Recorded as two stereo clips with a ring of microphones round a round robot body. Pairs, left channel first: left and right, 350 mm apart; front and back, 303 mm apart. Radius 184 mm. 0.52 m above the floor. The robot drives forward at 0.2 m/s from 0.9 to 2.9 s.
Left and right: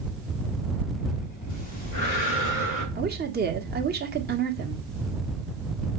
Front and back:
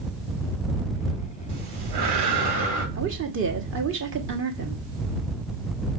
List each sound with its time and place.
1.5 s breathing: 145° left, 3.5 m; by 2.9 s 150° left, 3.5 m
3.0 s a woman speaking: 145° right, 1.6 m